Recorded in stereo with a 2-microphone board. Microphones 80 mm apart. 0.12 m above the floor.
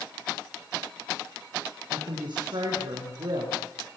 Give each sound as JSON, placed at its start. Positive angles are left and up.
{"t": 1.9, "sound": "a woman speaking", "side_deg": -65, "distance_m": 7.0}